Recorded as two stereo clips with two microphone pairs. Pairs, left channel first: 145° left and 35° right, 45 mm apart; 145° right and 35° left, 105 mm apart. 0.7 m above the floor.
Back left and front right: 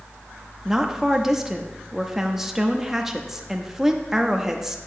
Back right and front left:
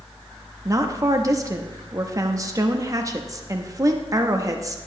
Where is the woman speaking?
35° left, 0.8 m.